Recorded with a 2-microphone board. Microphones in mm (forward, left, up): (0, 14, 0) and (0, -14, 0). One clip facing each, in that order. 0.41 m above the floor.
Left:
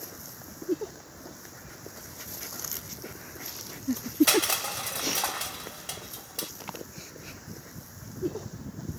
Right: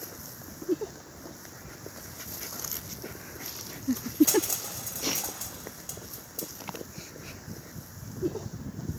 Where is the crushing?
70° left (ahead or behind), 0.8 m.